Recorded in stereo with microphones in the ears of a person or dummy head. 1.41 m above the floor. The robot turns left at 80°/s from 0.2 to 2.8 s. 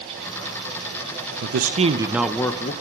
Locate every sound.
1.4 s a man speaking: 110° right, 0.9 m; by 2.7 s 145° left, 0.9 m